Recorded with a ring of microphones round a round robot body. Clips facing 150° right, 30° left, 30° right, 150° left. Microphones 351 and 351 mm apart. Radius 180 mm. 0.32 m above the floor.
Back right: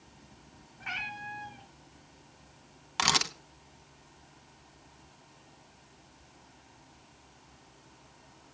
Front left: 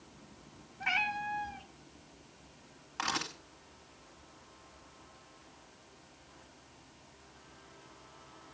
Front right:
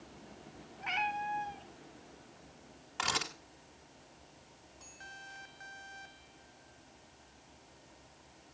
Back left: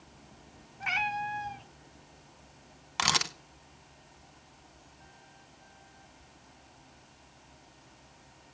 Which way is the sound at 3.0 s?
Straight behind.